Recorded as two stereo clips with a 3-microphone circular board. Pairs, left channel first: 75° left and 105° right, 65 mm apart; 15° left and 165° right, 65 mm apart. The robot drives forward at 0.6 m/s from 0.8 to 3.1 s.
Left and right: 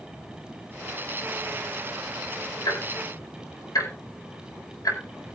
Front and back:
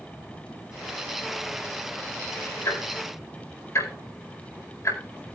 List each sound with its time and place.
2.6 s ticking: 55° left, 5 m